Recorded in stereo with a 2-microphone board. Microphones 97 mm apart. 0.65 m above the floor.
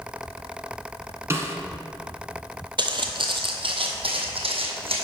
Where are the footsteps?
50° right (ahead or behind), 1.0 m; by 5.0 s 70° right (ahead or behind), 1.9 m.